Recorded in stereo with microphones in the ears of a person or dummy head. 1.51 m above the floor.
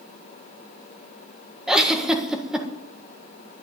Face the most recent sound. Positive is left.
turn(degrees=0)  # may be behind; listen again after turning